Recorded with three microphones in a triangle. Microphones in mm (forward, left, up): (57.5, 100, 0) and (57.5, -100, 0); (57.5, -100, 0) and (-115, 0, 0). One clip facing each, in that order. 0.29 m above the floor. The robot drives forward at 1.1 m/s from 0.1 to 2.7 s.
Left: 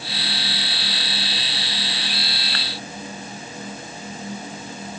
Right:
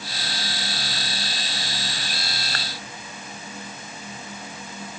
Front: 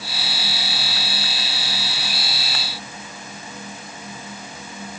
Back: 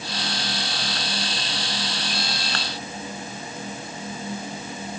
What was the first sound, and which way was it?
Only background noise.